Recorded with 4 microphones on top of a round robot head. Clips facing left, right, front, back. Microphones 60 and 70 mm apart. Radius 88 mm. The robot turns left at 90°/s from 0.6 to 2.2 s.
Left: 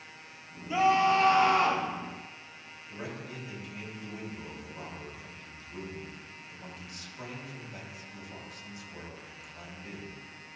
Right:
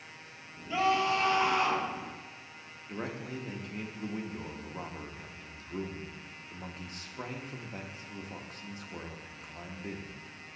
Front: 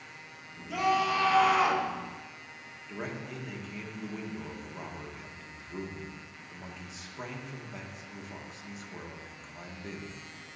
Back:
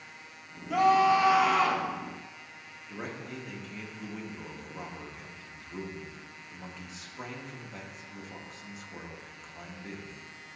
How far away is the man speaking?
About 0.9 m.